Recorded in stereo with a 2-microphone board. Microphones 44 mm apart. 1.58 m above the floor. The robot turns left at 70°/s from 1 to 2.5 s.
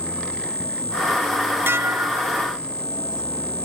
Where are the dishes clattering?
70° right; by 2.4 s 125° right.